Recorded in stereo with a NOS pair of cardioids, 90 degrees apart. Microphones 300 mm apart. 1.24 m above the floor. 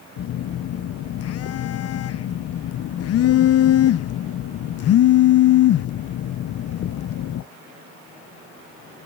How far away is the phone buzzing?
About 0.6 m.